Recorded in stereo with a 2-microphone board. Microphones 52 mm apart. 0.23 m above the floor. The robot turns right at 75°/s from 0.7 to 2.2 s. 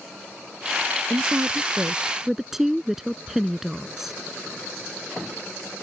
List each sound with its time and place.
1.1 s a woman speaking: 90° right; by 4.2 s 10° right